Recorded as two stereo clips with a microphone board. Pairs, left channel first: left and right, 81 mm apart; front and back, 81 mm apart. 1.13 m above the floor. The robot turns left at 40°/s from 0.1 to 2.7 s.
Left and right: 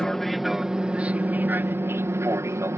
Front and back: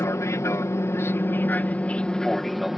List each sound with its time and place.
0.0 s an aircraft: 10° left; by 2.8 s 95° right